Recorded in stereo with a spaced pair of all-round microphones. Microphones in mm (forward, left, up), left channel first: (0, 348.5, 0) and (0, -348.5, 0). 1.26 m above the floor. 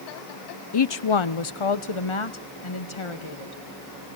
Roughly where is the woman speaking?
Left.